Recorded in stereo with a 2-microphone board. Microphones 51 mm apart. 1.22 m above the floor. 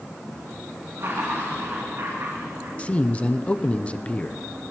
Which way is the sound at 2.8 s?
25° left (ahead or behind).